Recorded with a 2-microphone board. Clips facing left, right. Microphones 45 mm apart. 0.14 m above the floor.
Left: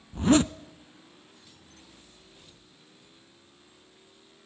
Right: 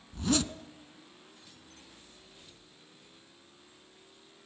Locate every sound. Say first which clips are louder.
0.1 s a zipper: left 9 dB; 35° left (ahead or behind), 0.7 m